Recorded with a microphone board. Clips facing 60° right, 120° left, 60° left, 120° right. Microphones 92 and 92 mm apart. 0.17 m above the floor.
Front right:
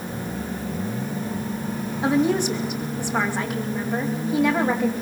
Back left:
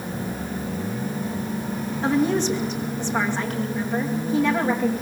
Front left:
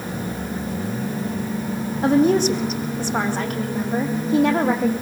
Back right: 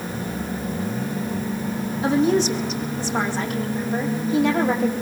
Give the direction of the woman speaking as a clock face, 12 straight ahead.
11 o'clock.